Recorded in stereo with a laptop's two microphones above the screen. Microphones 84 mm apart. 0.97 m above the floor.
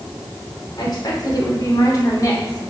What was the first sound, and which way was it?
A woman speaking, 55° left (ahead or behind).